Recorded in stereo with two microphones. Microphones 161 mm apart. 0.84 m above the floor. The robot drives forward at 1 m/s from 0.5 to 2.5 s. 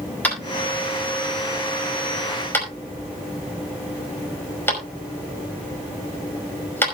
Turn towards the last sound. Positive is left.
turn(degrees=15)  # may be behind; listen again after turning